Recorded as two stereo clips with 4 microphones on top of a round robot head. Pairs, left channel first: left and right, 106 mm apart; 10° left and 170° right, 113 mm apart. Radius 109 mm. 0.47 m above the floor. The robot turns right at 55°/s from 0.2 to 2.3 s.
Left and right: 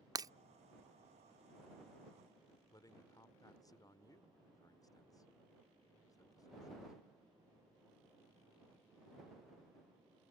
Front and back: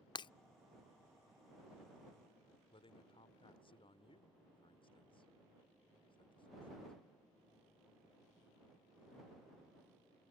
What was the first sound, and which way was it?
Breaking glass, 35° right.